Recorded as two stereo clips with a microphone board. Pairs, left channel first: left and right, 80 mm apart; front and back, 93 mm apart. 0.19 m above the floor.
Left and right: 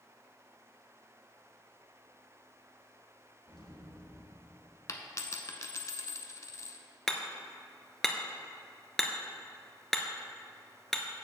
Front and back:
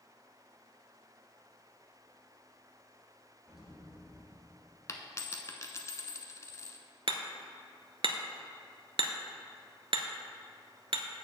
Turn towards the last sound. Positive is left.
turn(degrees=175)